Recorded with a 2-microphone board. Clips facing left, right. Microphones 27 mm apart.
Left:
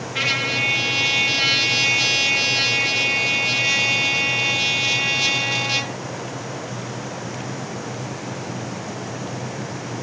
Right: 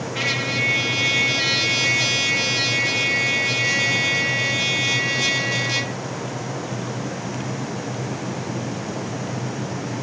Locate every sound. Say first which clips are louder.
0.1 s a trumpet: left 2 dB; 20° left (ahead or behind), 0.7 m